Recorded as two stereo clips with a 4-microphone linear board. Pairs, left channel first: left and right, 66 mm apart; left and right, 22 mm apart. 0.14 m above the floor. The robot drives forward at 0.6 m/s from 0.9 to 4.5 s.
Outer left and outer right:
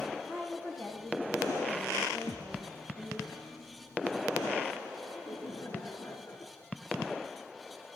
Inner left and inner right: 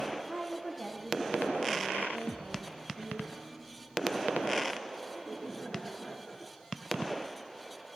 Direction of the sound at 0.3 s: 35° left (ahead or behind).